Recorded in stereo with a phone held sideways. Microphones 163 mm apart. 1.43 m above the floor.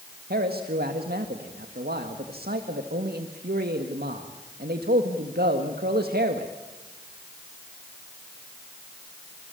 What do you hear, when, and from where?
0.3 s a man speaking: 75° right (ahead or behind), 1.8 m